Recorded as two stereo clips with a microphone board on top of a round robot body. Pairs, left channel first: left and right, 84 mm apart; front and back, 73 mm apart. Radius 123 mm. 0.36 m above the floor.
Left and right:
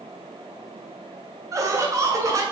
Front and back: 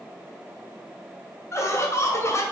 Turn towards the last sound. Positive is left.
turn(degrees=-45)